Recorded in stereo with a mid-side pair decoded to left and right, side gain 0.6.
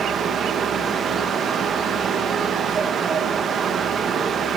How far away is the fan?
About 0.9 m.